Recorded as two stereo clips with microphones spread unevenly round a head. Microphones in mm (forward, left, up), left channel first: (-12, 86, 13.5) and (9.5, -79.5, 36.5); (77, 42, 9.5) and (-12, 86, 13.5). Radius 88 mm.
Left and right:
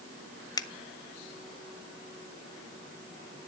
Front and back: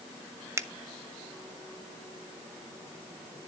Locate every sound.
0.6 s a finger snap: 115° left, 0.7 m